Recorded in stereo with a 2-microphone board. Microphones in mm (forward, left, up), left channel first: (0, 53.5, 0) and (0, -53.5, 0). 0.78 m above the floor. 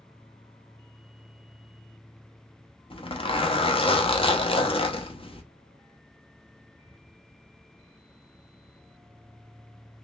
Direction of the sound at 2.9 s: 55° left (ahead or behind).